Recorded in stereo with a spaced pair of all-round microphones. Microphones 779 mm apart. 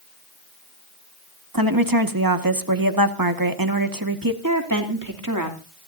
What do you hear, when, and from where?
1.5 s a woman speaking: 25° right (ahead or behind), 1.5 m
4.4 s a woman speaking: 25° right (ahead or behind), 2.5 m